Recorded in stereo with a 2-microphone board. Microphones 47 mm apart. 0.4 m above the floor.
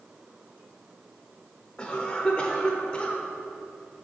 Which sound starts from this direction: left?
A cough, at 1.8 s.